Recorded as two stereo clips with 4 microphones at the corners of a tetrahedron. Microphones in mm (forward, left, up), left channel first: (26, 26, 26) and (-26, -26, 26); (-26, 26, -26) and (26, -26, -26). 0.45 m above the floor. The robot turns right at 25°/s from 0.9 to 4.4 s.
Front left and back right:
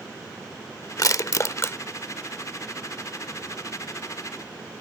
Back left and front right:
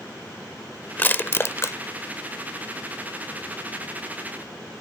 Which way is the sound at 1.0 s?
75° left.